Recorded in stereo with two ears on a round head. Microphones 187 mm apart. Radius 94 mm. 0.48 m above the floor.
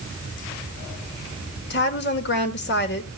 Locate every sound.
1.7 s a woman speaking: 50° left (ahead or behind), 1.8 m